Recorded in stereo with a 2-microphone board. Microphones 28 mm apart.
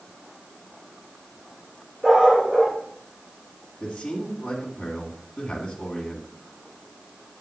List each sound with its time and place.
2.0 s a dog barking: 5° right (ahead or behind), 4 m
3.8 s a man speaking: 55° left (ahead or behind), 2.5 m